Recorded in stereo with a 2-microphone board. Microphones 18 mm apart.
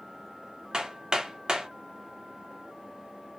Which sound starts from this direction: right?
Hammering, at 0.7 s.